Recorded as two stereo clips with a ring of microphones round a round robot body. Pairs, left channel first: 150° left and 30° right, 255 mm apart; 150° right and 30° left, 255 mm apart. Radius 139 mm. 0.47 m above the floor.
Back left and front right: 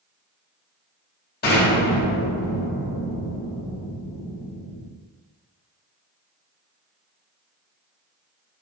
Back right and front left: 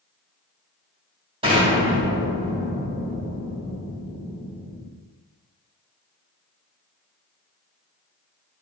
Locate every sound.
1.4 s an explosion: 100° left, 4 m